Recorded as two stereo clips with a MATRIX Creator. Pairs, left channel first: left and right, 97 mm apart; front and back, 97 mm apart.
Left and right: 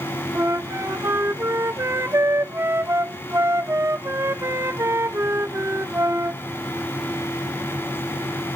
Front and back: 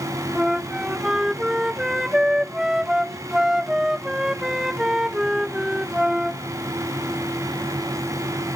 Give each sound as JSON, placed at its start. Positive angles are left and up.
{"t": 0.3, "sound": "a flute", "azimuth_deg": -100}